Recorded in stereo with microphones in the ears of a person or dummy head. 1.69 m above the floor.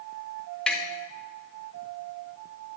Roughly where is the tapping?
Centre.